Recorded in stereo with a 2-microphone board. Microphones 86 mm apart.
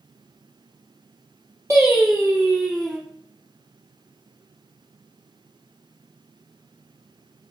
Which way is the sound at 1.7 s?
30° right (ahead or behind).